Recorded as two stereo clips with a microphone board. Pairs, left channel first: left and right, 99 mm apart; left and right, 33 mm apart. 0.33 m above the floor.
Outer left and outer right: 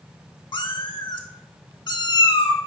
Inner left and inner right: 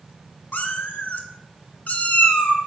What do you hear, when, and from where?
0.5 s a cat meowing: 55° left (ahead or behind), 0.5 m